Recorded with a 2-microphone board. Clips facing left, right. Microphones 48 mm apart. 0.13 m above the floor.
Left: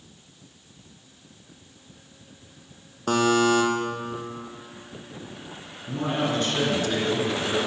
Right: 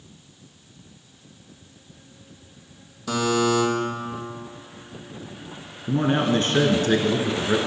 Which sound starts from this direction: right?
A man speaking, at 5.9 s.